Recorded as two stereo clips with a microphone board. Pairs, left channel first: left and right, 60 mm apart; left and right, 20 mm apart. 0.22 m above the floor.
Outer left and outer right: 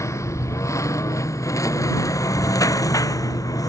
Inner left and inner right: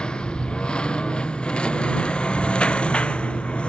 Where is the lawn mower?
55° left (ahead or behind); by 3.7 s 75° left (ahead or behind).